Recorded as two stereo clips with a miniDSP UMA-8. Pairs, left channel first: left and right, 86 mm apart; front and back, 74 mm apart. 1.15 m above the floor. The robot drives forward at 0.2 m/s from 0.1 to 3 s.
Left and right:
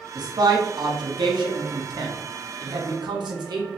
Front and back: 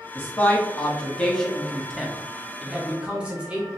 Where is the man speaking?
60° right, 0.8 m; by 3.7 s 105° right, 0.8 m.